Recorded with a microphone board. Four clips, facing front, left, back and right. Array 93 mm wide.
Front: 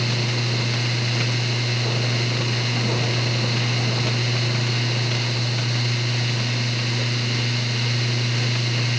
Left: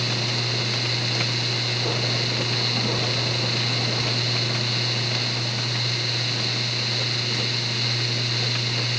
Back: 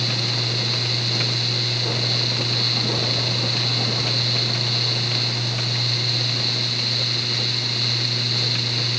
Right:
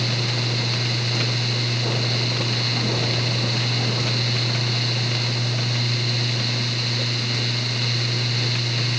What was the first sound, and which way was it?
Only background noise.